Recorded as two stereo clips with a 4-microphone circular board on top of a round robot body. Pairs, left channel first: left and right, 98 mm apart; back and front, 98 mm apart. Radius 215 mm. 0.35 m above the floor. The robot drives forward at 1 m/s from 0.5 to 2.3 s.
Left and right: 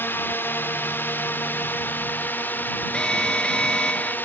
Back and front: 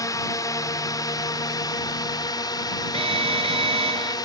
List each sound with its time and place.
0.0 s a drone: 150° left; by 4.3 s 155° left
2.9 s an alarm: 10° left